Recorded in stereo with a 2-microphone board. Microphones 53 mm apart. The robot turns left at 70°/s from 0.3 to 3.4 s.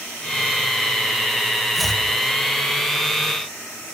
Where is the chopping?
5° right (ahead or behind), 3 m; by 2.0 s 15° left (ahead or behind), 3 m.